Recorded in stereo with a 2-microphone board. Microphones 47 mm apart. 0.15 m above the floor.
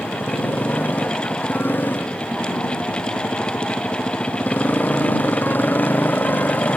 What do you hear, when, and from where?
0.0 s a motorcycle: 45° left (ahead or behind)